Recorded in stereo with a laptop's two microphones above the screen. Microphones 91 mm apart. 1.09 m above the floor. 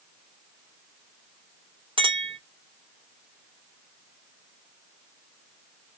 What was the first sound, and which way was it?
A clink, 70° right (ahead or behind).